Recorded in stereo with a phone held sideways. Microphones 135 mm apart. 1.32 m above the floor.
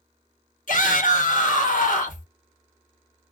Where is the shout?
75° left (ahead or behind), 1.3 m.